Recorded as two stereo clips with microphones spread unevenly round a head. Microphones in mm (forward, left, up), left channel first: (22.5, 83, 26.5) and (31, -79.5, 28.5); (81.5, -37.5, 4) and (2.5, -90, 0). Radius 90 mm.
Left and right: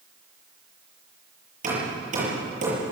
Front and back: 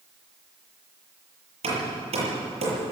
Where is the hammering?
135° right, 8 m.